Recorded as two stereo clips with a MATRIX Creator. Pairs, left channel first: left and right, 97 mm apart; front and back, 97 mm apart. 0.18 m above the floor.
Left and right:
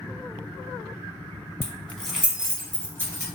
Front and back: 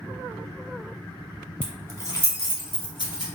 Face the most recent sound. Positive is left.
turn(degrees=-35)